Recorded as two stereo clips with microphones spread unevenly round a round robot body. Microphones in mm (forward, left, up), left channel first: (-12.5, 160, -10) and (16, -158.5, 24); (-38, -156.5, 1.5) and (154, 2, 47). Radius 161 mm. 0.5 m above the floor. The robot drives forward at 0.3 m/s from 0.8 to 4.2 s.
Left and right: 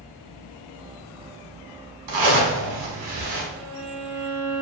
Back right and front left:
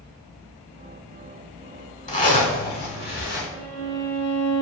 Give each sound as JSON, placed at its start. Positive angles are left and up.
{"t": 2.1, "sound": "a zipper", "azimuth_deg": -85, "distance_m": 1.4}
{"t": 3.5, "sound": "a violin", "azimuth_deg": -155, "distance_m": 1.4}